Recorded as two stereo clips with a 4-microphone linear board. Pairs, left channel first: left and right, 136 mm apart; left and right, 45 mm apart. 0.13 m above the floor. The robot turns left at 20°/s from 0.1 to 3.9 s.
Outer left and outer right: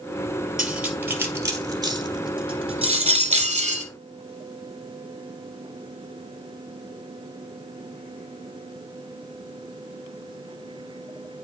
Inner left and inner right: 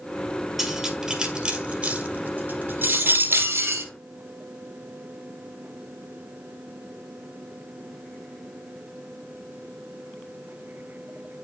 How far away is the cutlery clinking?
About 1.8 m.